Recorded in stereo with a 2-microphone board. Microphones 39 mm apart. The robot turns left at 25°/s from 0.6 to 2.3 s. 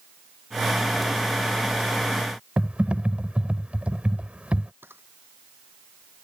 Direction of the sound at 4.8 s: 75° right (ahead or behind).